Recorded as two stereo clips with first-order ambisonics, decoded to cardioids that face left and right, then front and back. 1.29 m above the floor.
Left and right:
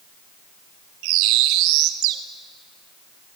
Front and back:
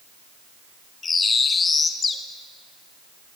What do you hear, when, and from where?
1.0 s a bird: 70° right, 1.1 m